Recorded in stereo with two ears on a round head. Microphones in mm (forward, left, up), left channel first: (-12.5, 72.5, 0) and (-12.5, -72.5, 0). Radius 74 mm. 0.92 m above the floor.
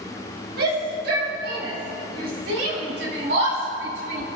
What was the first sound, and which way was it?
A shout, 65° right (ahead or behind).